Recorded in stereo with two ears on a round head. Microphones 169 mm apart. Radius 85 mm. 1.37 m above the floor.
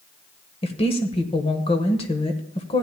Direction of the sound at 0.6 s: 30° left (ahead or behind).